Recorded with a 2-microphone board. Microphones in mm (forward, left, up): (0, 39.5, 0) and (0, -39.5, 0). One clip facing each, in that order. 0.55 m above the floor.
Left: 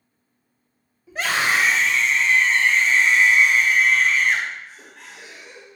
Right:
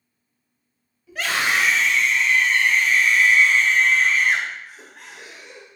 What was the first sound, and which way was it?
A scream, 30° left (ahead or behind).